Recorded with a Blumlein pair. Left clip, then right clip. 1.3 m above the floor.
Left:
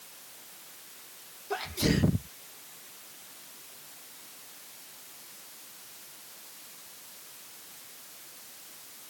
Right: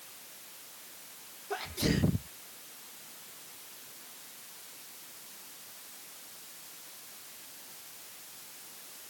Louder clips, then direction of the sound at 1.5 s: Left 3 dB; 10° left.